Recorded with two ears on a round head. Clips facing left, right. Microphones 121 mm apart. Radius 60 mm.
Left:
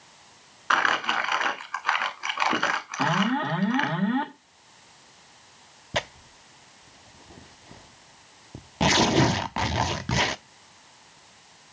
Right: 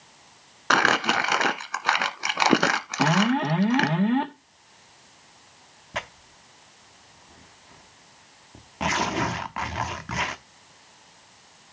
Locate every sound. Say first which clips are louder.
0.7 s crumpling: right 3 dB; 50° right (ahead or behind), 1.0 m
3.0 s an alarm: right 3 dB; 20° right (ahead or behind), 1.2 m
5.9 s tearing paper: left 4 dB; 35° left (ahead or behind), 0.6 m